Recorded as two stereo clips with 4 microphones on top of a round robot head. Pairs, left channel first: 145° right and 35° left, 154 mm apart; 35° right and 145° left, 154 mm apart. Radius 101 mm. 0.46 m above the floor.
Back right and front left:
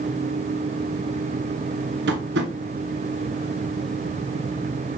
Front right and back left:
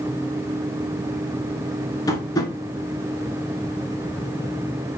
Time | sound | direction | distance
2.1 | tapping | 35° left | 1.5 m